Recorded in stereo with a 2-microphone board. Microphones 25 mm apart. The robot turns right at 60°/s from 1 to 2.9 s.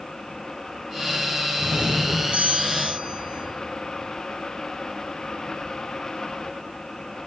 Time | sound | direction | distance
1.6 | a doorbell | 135° right | 9.5 m